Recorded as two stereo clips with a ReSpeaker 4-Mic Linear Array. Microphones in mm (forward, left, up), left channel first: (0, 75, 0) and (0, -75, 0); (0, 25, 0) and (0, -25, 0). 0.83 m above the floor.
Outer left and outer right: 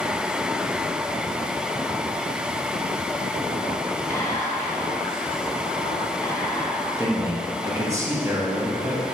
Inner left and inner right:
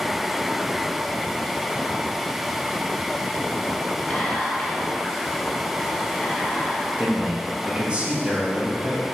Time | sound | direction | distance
4.1 | whispering | 15° left (ahead or behind) | 0.8 m
7.0 | a man speaking | 20° right (ahead or behind) | 0.8 m